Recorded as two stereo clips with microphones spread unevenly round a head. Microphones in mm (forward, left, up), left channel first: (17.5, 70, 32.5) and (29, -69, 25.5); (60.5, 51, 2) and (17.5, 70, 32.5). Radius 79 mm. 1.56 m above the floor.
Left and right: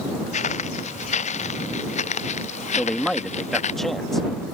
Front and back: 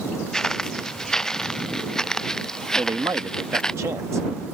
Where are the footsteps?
60° left; by 3.8 s 55° left.